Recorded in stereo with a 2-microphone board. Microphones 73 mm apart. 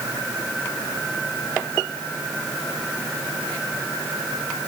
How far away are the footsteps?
I don't hear footsteps.